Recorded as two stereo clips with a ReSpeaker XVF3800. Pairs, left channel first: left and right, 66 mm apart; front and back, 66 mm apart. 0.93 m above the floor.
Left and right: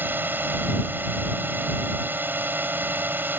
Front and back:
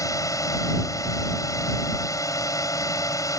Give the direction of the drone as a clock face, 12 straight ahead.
1 o'clock.